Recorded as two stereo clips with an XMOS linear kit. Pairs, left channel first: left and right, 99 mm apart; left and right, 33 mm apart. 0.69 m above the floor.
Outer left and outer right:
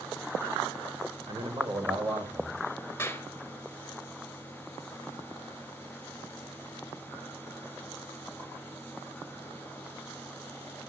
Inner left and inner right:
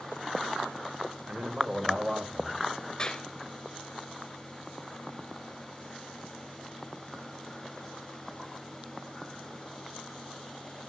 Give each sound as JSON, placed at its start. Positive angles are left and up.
{"t": 1.3, "sound": "a man speaking", "side_deg": -55, "distance_m": 1.8}
{"t": 3.0, "sound": "a clap", "side_deg": 25, "distance_m": 2.5}